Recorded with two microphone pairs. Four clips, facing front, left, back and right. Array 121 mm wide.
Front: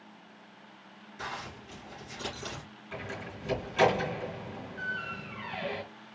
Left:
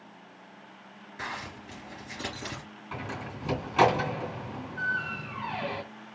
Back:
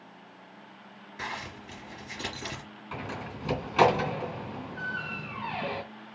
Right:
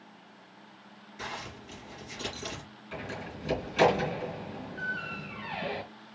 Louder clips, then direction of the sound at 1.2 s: Left 2 dB, back 2 dB; 130° left.